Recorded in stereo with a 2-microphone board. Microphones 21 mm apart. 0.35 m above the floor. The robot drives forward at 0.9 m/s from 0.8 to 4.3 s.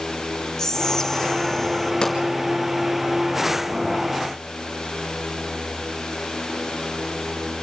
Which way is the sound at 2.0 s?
35° left (ahead or behind).